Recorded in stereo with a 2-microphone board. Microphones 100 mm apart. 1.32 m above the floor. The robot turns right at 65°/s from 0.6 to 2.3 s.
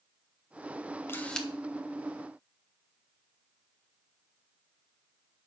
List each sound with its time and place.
1.1 s a camera shutter: 25° left (ahead or behind), 1.1 m; by 1.5 s centre (ahead or behind), 1.1 m